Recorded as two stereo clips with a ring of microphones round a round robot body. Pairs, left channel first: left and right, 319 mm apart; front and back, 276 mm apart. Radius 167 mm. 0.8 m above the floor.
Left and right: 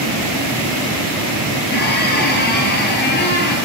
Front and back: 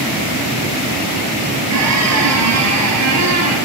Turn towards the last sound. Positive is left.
turn(degrees=150)